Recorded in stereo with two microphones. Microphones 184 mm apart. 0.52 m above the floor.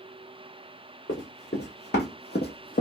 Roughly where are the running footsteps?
Left.